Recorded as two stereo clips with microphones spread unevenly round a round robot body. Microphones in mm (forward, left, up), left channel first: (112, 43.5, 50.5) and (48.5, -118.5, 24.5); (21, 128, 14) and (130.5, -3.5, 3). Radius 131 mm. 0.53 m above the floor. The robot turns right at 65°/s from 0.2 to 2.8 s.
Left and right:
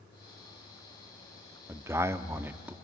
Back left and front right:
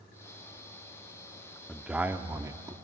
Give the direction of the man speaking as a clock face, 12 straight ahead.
4 o'clock.